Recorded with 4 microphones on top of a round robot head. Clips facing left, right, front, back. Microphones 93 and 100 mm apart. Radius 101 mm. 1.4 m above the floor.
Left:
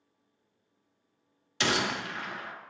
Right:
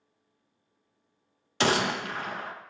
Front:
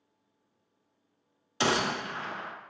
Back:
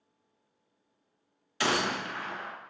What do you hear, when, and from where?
1.6 s a gunshot: 55° right, 0.5 m